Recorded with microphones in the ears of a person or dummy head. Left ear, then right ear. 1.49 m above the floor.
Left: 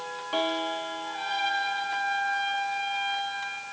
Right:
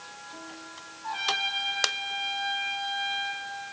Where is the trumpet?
65° right (ahead or behind), 1.6 m.